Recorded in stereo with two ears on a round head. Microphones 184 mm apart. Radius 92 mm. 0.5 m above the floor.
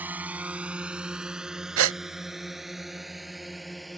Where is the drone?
10° right (ahead or behind); by 4.0 s centre (ahead or behind).